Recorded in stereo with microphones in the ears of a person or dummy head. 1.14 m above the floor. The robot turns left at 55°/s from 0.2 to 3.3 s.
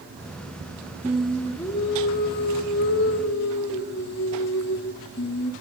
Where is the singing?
170° right, 1.3 m; by 5.5 s 65° left, 1.3 m.